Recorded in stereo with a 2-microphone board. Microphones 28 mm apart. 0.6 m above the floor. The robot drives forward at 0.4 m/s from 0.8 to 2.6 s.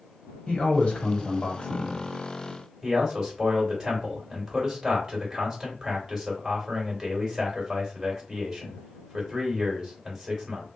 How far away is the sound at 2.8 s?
About 1.9 m.